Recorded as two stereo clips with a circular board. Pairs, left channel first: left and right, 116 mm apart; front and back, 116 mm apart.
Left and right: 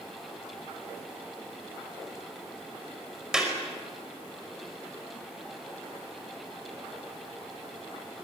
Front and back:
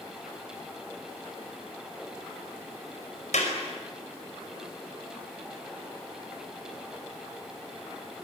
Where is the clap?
5° right, 5 m.